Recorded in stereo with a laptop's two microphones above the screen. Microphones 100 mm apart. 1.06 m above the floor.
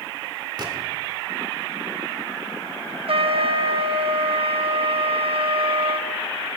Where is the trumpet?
70° right (ahead or behind), 0.6 m.